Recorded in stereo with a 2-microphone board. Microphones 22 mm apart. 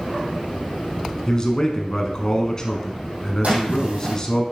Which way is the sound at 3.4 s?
65° right (ahead or behind).